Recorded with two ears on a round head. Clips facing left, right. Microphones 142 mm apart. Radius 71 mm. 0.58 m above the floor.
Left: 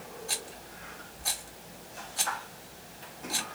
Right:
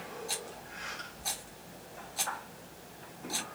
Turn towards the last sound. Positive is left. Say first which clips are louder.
# even
turn(degrees=-5)  # may be behind; listen again after turning